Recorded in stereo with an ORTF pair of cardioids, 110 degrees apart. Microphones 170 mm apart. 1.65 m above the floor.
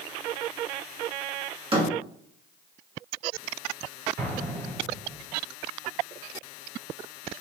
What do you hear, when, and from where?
1.7 s a door slam: 30° right, 2 m
4.2 s an explosion: 70° right, 3.5 m